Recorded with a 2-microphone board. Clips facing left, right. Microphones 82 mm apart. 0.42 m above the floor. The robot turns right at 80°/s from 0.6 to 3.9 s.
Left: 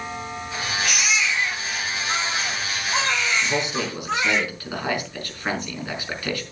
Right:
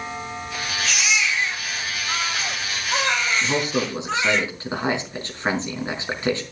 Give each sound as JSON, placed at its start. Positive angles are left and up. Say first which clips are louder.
{"t": 0.8, "sound": "a baby crying", "louder": "right 1 dB", "azimuth_deg": 120, "distance_m": 8.5}
{"t": 3.4, "sound": "a man speaking", "louder": "right 2 dB", "azimuth_deg": -65, "distance_m": 4.5}